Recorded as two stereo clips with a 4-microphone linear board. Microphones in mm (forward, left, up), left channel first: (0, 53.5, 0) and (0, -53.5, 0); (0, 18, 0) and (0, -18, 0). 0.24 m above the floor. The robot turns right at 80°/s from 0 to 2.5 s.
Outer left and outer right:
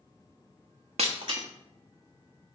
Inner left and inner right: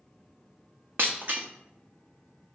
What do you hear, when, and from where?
1.0 s breaking glass: 75° right (ahead or behind), 0.9 m; by 1.4 s 45° right (ahead or behind), 0.9 m